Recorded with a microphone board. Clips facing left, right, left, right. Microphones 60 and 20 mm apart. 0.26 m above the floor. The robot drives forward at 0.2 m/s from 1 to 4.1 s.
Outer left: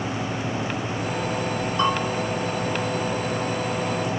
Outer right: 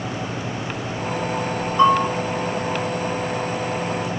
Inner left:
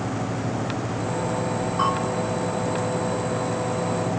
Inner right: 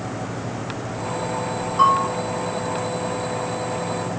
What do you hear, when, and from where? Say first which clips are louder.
1.8 s a bell: outer right 8 dB, inner right 8 dB; 25° right (ahead or behind), 5 m